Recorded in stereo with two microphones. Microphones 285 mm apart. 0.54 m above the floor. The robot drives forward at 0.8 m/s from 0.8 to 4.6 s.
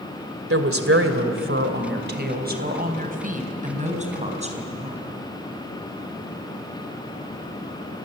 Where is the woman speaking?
55° right (ahead or behind), 2.5 m; by 5.0 s 25° right (ahead or behind), 4.5 m.